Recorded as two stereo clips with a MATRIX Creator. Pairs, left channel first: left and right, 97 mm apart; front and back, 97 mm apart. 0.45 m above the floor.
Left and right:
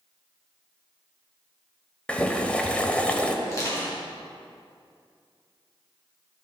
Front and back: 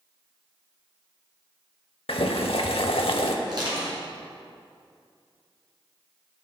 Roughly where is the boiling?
Ahead.